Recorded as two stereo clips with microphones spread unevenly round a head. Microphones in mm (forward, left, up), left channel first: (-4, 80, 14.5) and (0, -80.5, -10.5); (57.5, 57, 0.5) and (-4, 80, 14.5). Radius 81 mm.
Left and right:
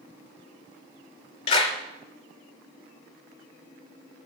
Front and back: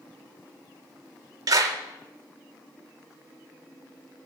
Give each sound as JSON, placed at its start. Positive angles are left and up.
{"t": 1.5, "sound": "a clap", "azimuth_deg": 145, "distance_m": 3.5}